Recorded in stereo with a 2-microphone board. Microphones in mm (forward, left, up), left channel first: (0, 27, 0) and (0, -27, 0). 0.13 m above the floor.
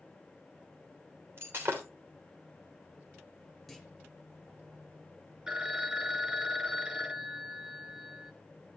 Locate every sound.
1.4 s breaking glass: 45° right (ahead or behind), 3 m
3.7 s a clunk: 5° left (ahead or behind), 1.4 m
5.5 s a phone ringing: 15° right (ahead or behind), 1.0 m